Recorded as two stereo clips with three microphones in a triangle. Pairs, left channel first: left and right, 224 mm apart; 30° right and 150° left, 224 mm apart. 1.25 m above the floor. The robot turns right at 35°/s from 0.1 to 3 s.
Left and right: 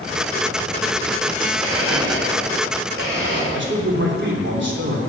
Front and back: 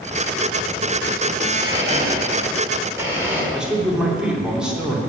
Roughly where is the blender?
Behind.